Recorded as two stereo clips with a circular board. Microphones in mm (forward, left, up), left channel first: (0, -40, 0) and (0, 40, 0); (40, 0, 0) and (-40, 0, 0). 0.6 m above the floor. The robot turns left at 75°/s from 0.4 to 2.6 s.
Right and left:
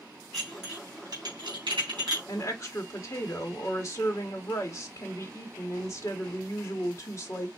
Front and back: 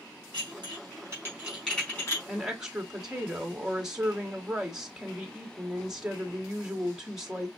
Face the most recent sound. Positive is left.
turn(degrees=-100)